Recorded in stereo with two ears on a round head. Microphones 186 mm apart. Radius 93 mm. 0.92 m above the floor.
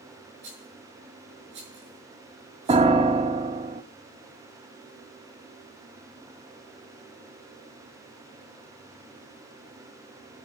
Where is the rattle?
60° right (ahead or behind), 6.5 m.